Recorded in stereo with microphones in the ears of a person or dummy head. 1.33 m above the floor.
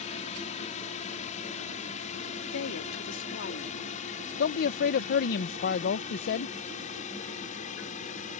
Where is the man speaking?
60° left (ahead or behind).